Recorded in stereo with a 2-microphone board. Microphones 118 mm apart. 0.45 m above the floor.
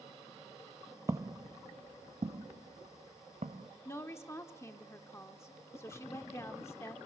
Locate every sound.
1.1 s footsteps: 25° right (ahead or behind), 0.5 m; by 3.7 s 70° right (ahead or behind), 1.7 m
3.9 s a woman speaking: 20° left (ahead or behind), 0.9 m